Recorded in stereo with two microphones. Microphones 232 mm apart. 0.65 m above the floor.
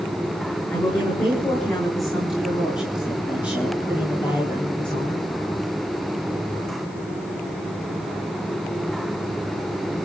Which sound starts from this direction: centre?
A woman speaking, at 0.7 s.